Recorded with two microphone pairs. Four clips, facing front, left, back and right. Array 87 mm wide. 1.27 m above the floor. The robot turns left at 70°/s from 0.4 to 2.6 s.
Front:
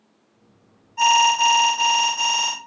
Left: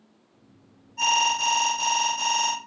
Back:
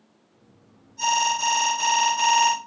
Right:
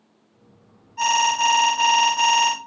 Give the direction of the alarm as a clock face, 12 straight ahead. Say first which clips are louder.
Right 4 dB, front 6 dB; 1 o'clock.